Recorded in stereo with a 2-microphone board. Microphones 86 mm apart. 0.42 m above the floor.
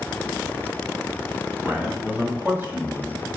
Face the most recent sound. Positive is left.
turn(degrees=-30)  # may be behind; listen again after turning